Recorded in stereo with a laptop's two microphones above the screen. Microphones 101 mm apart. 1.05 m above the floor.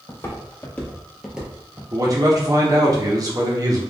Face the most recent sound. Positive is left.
turn(degrees=-35)  # may be behind; listen again after turning